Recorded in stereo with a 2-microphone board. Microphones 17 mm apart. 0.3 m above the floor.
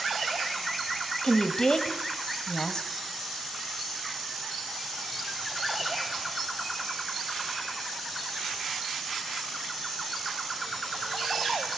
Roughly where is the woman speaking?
Left.